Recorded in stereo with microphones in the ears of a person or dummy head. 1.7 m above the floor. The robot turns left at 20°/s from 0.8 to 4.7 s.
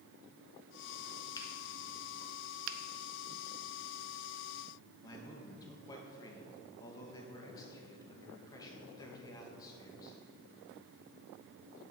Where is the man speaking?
20° left (ahead or behind), 2 m.